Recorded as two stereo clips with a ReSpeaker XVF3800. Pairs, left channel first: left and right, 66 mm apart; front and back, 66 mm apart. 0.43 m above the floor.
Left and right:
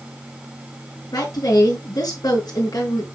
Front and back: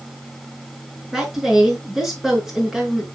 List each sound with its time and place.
1.1 s a woman speaking: 95° left, 5.5 m